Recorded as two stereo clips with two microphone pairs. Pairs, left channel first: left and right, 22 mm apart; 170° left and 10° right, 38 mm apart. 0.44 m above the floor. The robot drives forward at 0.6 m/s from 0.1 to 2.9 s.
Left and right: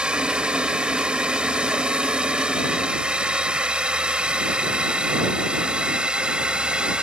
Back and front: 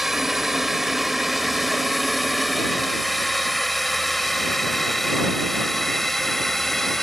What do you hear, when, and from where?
0.0 s a drone: 95° right; by 7.0 s 110° right